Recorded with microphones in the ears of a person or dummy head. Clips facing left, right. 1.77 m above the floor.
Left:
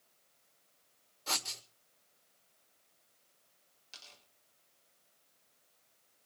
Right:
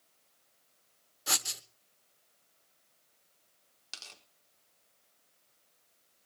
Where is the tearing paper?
70° right (ahead or behind), 4 m.